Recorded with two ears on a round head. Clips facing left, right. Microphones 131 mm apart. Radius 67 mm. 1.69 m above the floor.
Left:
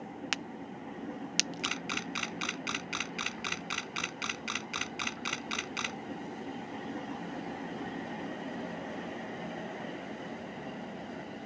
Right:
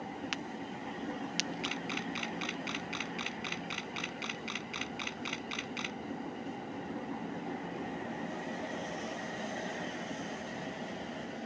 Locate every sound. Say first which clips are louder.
0.3 s a crack: right 1 dB; 55° left (ahead or behind)
1.6 s a camera shutter: right 1 dB; 60° left (ahead or behind)